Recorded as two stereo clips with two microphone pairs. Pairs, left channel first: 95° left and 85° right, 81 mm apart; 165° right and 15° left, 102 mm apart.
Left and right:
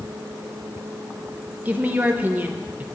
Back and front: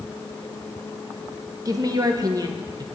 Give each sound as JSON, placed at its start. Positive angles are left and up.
{"t": 1.6, "sound": "a woman speaking", "azimuth_deg": -25, "distance_m": 0.7}